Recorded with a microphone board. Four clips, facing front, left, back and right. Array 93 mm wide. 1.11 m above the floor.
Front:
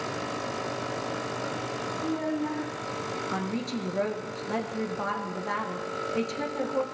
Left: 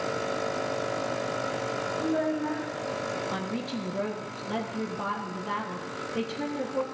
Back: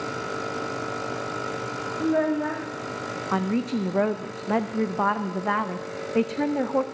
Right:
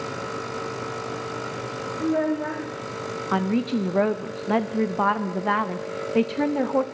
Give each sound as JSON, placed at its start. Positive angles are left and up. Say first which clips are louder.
{"t": 2.0, "sound": "a child speaking", "louder": "right 6 dB, back 8 dB", "azimuth_deg": -150, "distance_m": 1.8}
{"t": 3.3, "sound": "a woman speaking", "louder": "right 9 dB, back 10 dB", "azimuth_deg": -125, "distance_m": 0.7}